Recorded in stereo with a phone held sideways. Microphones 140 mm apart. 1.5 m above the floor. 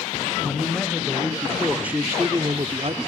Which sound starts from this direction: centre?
A man speaking, at 0.4 s.